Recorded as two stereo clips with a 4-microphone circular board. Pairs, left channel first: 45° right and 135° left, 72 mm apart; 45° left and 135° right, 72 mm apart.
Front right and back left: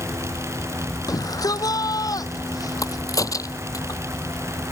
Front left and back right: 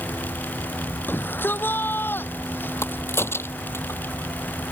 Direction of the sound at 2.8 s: 10° right.